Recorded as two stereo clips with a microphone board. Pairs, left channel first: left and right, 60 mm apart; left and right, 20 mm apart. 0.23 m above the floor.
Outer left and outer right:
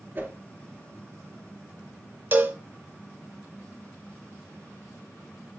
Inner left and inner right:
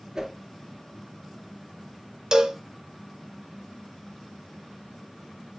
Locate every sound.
0.1 s a whoosh: 35° right (ahead or behind), 1.8 m
2.3 s a cowbell: 35° right (ahead or behind), 1.0 m